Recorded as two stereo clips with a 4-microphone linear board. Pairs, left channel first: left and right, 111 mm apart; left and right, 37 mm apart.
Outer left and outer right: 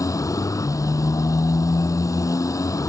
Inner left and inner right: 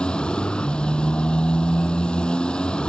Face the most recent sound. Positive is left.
turn(degrees=30)  # may be behind; listen again after turning